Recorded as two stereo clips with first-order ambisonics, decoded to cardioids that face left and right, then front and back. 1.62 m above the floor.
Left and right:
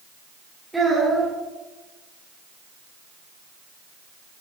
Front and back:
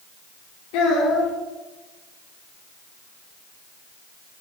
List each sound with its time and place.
0.7 s a child speaking: 5° right, 2 m